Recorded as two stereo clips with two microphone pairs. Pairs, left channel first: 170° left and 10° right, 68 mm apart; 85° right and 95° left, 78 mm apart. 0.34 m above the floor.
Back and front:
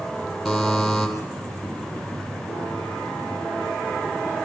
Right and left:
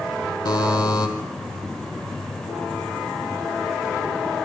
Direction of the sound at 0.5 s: 100° right.